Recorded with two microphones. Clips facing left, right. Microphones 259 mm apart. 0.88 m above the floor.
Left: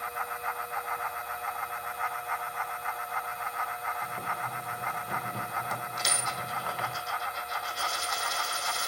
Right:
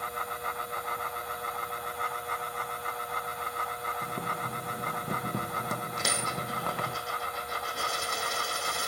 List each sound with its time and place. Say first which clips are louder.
4.0 s boiling: right 3 dB; 55° right (ahead or behind), 1.4 m
6.0 s a dropped coin: right 3 dB; 60° right (ahead or behind), 3 m